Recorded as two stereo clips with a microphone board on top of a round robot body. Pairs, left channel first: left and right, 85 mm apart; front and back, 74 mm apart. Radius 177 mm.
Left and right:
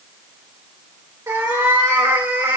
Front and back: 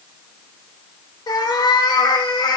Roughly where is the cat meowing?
Ahead right.